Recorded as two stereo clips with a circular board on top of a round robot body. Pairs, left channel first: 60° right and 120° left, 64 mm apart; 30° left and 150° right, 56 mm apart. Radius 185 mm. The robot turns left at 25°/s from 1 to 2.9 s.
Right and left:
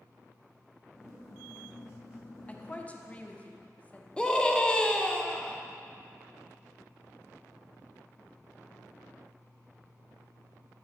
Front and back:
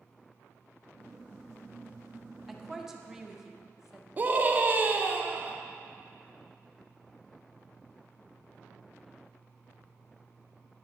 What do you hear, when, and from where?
2.5 s a woman speaking: 70° right, 1.2 m; by 4.1 s 85° right, 1.2 m
4.2 s a scream: 125° right, 1.1 m